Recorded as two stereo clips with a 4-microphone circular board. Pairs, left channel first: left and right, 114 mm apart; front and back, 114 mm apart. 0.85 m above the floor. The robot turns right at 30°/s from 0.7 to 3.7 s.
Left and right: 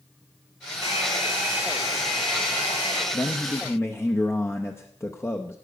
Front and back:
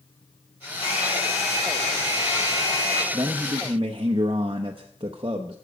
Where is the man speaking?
135° left, 0.8 m; by 5.5 s 155° left, 0.8 m.